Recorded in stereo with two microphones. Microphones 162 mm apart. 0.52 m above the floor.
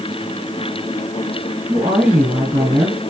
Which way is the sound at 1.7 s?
15° right (ahead or behind).